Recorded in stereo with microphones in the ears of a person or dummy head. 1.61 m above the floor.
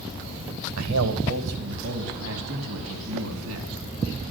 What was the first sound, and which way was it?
A man speaking, 85° right.